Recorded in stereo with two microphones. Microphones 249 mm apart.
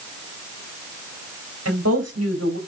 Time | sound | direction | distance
1.6 | a woman speaking | 80° right | 3.5 m